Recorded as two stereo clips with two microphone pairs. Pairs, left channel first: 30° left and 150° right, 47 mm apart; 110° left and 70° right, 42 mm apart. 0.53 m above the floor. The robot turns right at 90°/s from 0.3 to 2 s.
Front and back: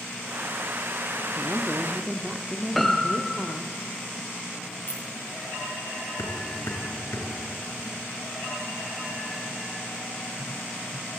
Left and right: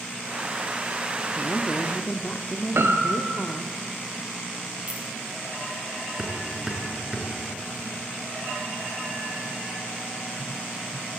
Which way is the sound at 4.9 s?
15° right.